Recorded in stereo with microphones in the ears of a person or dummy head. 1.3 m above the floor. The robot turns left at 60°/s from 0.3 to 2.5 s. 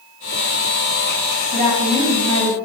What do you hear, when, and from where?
1.5 s a woman speaking: 45° right, 1.1 m; by 2.5 s 105° right, 1.1 m